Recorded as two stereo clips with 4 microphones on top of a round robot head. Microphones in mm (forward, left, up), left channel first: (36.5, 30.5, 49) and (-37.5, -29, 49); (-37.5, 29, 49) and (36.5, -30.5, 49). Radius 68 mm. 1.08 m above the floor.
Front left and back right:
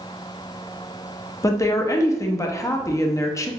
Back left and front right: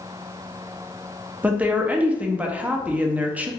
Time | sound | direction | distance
1.4 | a woman speaking | 25° left | 0.6 m